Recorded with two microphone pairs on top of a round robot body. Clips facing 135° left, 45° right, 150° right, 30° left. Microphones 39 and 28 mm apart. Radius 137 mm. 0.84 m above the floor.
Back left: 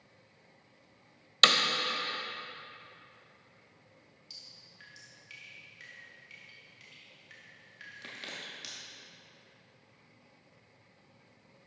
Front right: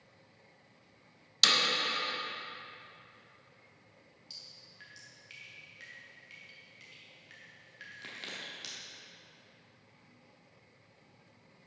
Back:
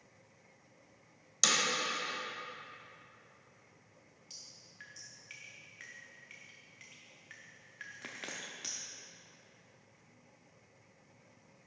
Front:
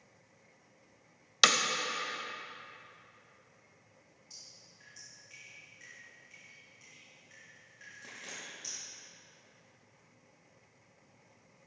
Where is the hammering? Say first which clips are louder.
Back left 4 dB, front 6 dB; 75° left, 0.7 m.